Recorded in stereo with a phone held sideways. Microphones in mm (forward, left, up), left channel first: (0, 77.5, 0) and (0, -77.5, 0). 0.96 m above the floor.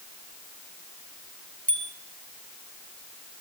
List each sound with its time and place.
1.7 s a bicycle bell: 10° left (ahead or behind), 5.5 m